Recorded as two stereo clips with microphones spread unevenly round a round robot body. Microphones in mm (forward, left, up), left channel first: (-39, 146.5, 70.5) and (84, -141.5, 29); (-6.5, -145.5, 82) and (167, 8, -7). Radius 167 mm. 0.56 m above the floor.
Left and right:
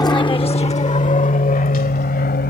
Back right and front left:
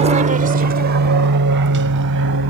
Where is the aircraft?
35° left; by 2.5 s 50° left.